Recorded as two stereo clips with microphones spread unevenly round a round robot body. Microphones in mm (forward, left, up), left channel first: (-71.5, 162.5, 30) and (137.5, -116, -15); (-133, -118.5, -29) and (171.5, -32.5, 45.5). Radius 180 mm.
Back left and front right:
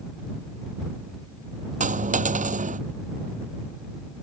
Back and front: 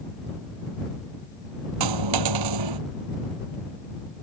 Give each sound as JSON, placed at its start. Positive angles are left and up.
{"t": 1.8, "sound": "a dropped coin", "azimuth_deg": 15}